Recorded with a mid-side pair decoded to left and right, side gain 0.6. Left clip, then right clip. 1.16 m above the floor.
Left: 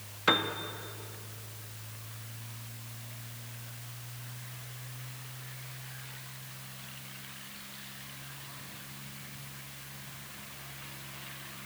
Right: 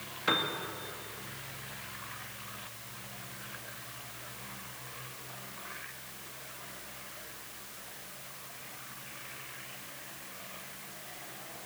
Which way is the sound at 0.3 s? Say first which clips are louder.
Left 3 dB; 30° left.